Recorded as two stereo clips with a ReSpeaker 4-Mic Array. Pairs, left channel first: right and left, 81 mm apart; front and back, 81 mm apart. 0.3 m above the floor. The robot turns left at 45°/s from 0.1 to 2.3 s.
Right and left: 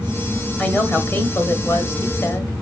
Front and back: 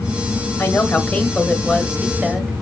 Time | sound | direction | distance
0.6 | a woman speaking | 45° right | 1.6 m